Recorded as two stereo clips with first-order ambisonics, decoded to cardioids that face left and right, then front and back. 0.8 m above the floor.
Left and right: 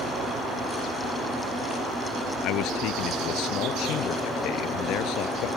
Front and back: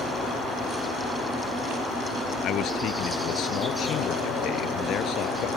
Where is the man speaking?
50° left.